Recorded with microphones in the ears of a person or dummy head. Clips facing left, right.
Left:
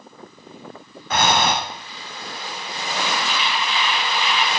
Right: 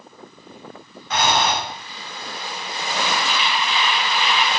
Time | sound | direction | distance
1.1 | breathing | 40° left (ahead or behind) | 1.4 m